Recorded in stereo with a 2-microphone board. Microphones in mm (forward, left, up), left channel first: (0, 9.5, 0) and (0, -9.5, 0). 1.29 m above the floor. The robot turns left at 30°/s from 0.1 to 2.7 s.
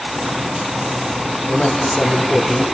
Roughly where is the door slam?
No door slam in this recording.